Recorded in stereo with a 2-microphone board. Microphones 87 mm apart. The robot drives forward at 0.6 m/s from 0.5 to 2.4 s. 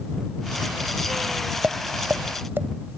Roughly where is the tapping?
Right.